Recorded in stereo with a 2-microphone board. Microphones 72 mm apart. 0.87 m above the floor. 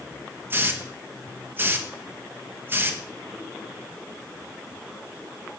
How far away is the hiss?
About 0.8 m.